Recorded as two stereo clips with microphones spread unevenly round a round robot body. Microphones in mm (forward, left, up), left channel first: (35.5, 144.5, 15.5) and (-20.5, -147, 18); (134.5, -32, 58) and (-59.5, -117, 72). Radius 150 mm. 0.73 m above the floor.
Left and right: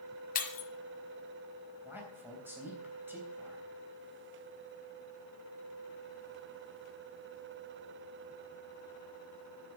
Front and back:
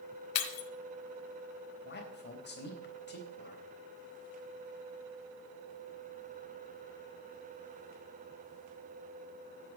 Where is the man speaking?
15° right, 3.5 m.